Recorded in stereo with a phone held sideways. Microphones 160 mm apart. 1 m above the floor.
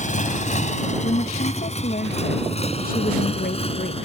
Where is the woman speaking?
60° left (ahead or behind).